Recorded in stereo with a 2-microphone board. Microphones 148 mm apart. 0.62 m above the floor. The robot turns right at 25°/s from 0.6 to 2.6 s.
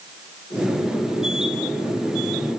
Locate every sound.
Only background noise.